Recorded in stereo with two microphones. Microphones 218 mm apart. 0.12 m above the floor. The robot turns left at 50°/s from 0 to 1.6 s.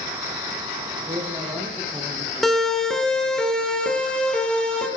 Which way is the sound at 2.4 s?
Centre (ahead or behind).